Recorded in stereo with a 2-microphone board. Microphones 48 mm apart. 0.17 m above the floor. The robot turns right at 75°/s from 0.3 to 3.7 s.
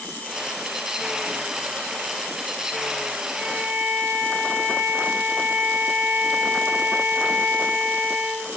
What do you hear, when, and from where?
3.3 s a violin: 20° left (ahead or behind), 1.9 m; by 8.5 s 10° right (ahead or behind), 1.9 m